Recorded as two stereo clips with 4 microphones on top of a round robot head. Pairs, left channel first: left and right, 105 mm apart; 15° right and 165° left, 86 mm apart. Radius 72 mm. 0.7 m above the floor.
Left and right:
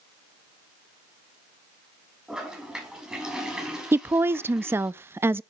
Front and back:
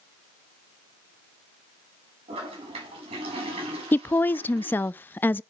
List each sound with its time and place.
2.3 s a toilet flushing: 175° right, 6.5 m
3.9 s a woman speaking: 50° right, 0.5 m